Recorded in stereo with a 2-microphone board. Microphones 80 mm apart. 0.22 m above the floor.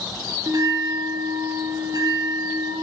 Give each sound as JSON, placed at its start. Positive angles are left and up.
{"t": 0.5, "sound": "a bell", "side_deg": -55, "distance_m": 2.0}